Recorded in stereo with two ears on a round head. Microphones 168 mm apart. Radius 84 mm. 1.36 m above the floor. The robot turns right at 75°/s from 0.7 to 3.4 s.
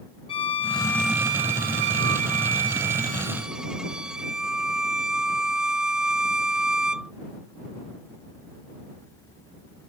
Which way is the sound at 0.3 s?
155° left.